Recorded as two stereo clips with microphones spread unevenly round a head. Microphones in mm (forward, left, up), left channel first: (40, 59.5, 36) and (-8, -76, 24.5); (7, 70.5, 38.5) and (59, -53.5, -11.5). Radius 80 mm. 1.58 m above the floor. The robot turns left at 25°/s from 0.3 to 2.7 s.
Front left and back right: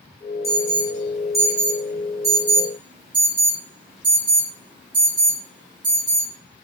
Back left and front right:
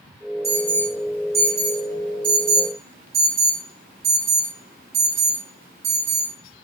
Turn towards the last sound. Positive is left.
turn(degrees=-55)